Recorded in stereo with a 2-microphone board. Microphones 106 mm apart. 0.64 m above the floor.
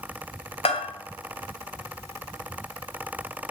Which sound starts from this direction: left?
A bell, at 0.7 s.